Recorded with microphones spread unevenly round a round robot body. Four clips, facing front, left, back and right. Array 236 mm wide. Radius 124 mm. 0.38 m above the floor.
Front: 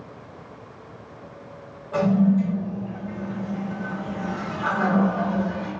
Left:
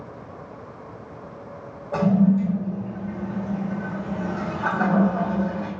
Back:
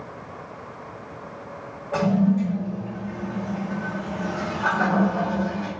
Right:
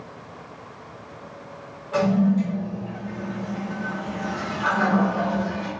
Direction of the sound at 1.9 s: 105° left.